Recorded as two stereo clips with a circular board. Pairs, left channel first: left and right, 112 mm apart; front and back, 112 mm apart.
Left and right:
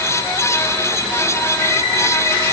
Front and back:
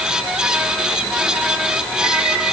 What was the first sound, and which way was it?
Only background noise.